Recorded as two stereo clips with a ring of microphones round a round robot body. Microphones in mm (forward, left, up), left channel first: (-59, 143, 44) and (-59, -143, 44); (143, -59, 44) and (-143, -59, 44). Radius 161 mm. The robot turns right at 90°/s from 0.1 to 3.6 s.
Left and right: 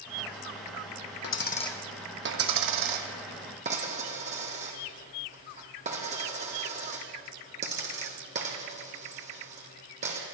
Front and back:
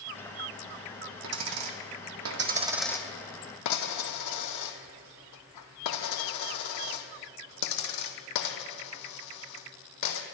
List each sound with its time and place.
1.2 s a dropped coin: 125° left, 1.8 m; by 10.2 s 20° right, 1.8 m